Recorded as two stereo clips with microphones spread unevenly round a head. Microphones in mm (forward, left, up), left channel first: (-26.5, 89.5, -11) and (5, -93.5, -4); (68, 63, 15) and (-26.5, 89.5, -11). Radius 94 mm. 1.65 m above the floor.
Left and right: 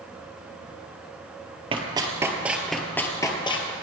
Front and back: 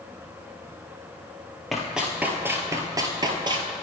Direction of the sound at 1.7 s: 75° right.